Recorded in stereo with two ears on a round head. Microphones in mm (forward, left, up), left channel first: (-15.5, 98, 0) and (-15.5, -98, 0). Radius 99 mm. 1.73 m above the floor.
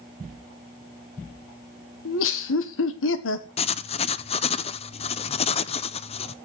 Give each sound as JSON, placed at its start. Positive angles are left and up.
{"t": 2.0, "sound": "laughter", "side_deg": 65, "distance_m": 1.6}
{"t": 3.6, "sound": "writing", "side_deg": 25, "distance_m": 0.6}